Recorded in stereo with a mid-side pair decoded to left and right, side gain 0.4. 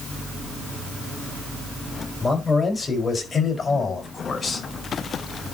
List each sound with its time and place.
2.2 s a man speaking: 25° left, 6 m; by 4.7 s 40° left, 5.5 m